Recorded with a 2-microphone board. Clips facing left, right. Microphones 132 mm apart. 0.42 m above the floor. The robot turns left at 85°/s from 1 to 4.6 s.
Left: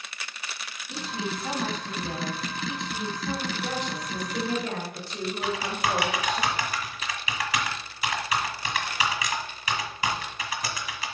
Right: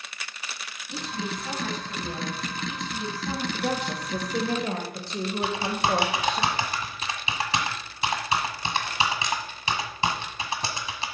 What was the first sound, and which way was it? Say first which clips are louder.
A woman speaking: even; 175° left.